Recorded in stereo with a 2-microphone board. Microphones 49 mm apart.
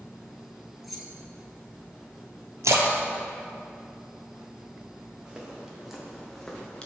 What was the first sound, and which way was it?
Keys jangling, centre (ahead or behind).